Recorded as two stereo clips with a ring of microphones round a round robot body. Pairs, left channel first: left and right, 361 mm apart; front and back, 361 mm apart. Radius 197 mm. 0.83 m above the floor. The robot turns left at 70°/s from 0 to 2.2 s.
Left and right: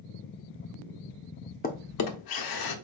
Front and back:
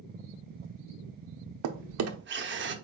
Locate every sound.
1.6 s a drawer: 160° left, 0.8 m; by 2.8 s 120° left, 0.8 m